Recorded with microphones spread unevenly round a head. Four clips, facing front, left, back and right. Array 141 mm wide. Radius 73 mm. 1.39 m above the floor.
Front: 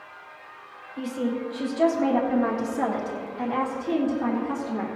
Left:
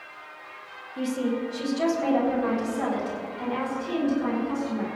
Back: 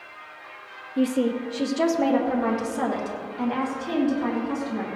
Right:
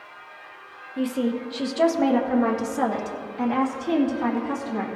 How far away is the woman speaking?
About 1.0 m.